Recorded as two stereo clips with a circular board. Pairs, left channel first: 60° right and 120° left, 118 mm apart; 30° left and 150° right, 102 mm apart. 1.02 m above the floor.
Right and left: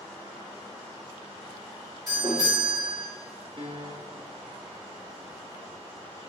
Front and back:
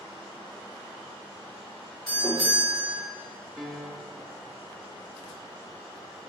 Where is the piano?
115° left, 0.7 m.